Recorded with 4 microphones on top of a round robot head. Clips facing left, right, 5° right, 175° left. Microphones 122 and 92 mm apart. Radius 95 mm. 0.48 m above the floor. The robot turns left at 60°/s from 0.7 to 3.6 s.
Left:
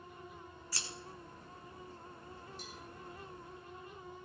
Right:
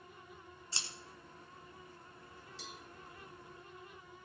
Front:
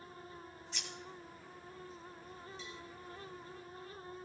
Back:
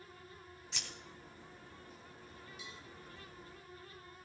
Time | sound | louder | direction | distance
0.7 | scissors | left 1 dB, even | 155° right | 2.5 m
2.6 | a cowbell | left 1 dB, front 3 dB | 100° right | 1.7 m